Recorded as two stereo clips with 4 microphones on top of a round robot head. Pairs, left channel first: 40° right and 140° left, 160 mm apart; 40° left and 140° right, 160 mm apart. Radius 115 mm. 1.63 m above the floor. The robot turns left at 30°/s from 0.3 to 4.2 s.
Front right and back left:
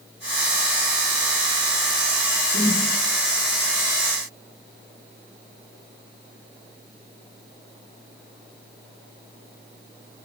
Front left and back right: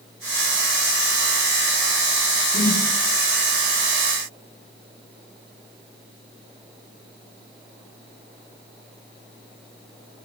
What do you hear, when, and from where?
2.5 s a whoosh: 75° left, 0.6 m; by 2.8 s 65° left, 0.6 m